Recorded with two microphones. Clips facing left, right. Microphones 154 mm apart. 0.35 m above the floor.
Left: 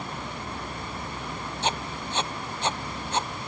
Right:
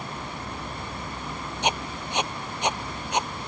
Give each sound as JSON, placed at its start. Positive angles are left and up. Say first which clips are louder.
{"t": 1.6, "sound": "writing", "louder": "right 2 dB", "side_deg": -15}